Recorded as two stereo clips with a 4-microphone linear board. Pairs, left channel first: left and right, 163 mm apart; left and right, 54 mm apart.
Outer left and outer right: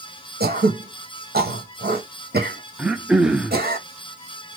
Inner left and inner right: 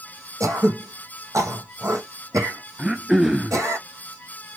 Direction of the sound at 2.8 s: 5° right (ahead or behind).